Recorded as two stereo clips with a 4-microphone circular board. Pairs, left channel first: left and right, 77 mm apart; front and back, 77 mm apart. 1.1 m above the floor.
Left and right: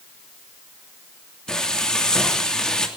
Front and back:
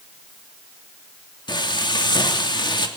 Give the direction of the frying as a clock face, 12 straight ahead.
12 o'clock.